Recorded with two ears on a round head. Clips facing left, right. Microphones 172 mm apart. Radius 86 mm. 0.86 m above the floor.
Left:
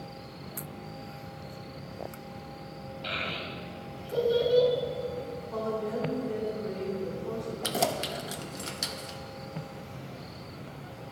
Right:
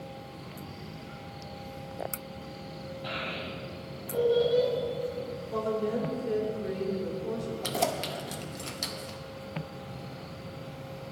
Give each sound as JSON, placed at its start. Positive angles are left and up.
{"t": 3.0, "sound": "a child speaking", "side_deg": 35, "distance_m": 3.0}
{"t": 5.5, "sound": "a woman speaking", "side_deg": -30, "distance_m": 3.5}
{"t": 7.6, "sound": "keys jangling", "side_deg": 5, "distance_m": 0.7}